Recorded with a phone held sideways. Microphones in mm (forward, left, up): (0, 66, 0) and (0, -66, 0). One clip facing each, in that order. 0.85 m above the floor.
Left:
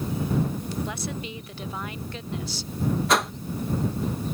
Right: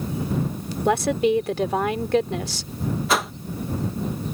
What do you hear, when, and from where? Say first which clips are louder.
0.8 s a woman speaking: right 14 dB; 80° right
3.1 s a whoosh: right 1 dB; centre (ahead or behind)